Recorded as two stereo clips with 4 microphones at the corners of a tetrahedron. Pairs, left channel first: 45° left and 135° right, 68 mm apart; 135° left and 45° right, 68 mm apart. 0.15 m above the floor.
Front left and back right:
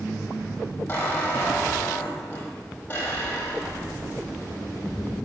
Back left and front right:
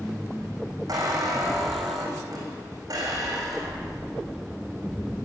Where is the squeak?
15° right, 5 m.